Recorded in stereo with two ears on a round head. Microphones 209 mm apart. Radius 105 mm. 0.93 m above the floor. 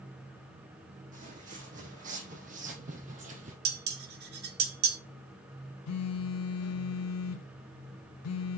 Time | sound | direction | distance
1.1 | footsteps | 35° right (ahead or behind) | 3 m
3.6 | dishes clattering | 45° right (ahead or behind) | 1.3 m
5.9 | a phone buzzing | 75° left (ahead or behind) | 1.0 m